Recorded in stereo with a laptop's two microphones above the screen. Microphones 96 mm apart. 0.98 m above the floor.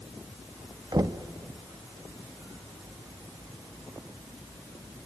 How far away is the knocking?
About 0.8 m.